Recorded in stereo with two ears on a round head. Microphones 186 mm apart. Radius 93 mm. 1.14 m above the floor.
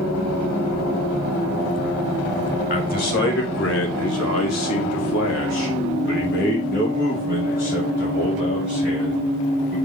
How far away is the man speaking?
About 2.5 m.